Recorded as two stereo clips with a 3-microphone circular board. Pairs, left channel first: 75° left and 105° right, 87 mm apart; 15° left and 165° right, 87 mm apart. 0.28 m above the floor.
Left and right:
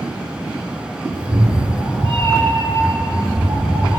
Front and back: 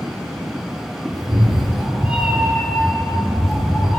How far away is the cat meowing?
About 1.8 m.